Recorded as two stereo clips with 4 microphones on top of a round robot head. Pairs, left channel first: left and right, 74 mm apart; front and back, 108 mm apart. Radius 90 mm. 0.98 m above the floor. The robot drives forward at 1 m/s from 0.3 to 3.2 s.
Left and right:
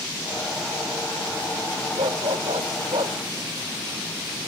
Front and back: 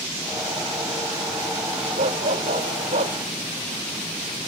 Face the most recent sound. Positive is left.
turn(degrees=-140)